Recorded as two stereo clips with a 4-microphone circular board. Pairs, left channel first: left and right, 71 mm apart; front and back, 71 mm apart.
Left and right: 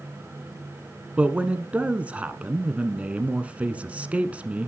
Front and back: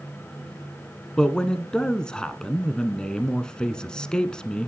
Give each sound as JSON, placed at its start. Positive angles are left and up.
{"t": 1.2, "sound": "a man speaking", "azimuth_deg": -55, "distance_m": 1.1}